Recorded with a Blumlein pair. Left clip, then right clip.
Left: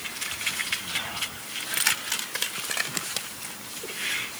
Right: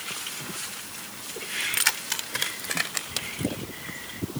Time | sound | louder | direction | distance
1.6 | keys jangling | even | 5° right | ?